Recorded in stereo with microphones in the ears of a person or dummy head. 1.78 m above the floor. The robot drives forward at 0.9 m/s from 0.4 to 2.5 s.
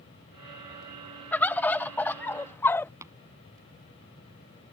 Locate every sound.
1.3 s a bird: 5° left (ahead or behind); by 2.9 s 10° left (ahead or behind)
3.0 s tapping: 15° right (ahead or behind)